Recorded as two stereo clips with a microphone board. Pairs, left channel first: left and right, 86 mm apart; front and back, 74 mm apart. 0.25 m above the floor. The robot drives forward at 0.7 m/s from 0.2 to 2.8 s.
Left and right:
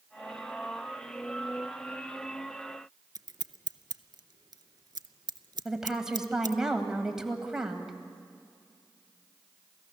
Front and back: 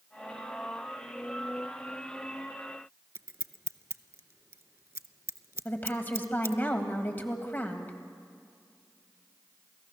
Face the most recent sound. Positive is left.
turn(degrees=-15)